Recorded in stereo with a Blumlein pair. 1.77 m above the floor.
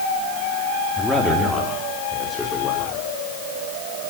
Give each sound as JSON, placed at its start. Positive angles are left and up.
{"t": 1.0, "sound": "a man speaking", "azimuth_deg": 0, "distance_m": 4.0}